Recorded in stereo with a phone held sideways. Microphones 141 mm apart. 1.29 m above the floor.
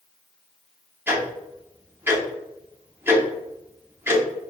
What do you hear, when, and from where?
1.1 s ticking: 15° right (ahead or behind), 0.8 m